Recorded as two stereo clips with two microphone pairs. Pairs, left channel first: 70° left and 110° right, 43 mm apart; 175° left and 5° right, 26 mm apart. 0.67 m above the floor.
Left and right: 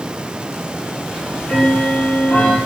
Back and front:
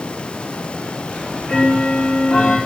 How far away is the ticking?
About 5 m.